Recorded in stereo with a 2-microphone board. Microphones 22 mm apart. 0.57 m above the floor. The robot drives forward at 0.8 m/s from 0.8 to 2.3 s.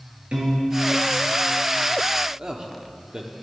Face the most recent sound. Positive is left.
turn(degrees=-35)  # may be behind; listen again after turning